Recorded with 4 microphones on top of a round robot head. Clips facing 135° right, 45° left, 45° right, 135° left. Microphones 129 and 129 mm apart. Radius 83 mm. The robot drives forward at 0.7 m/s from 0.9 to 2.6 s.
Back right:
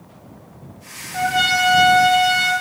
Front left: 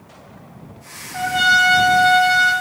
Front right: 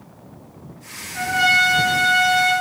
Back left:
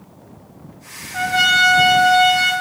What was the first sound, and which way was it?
A trumpet, 135° left.